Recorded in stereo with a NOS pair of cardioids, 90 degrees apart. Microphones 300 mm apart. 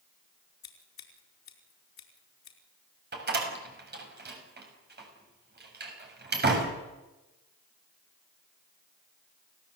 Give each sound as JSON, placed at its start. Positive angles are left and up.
{"t": 0.6, "sound": "scissors", "azimuth_deg": 65, "distance_m": 4.5}
{"t": 3.1, "sound": "a door slam", "azimuth_deg": -35, "distance_m": 7.0}